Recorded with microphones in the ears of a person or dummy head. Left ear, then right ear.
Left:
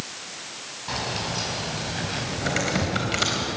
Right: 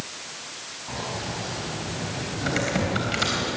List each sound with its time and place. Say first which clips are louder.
0.9 s keys jangling: left 4 dB; 65° left (ahead or behind), 6.5 m; by 3.0 s 75° left (ahead or behind), 5 m
2.4 s typing on a keyboard: even; 5° left (ahead or behind), 3.5 m